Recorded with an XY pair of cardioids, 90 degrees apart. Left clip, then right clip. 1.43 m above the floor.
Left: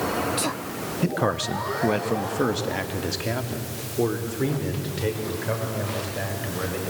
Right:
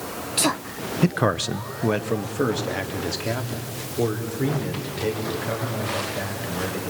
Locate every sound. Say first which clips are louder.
1.0 s a man speaking: right 2 dB; 45° right, 0.7 m; by 6.9 s 10° left, 7 m